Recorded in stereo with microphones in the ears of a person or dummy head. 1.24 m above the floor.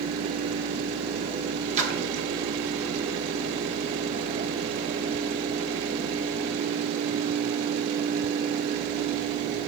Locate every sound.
1.8 s a splash: 45° right (ahead or behind), 0.7 m